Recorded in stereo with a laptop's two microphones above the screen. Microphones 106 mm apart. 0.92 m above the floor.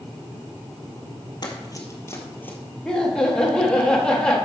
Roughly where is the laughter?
Centre.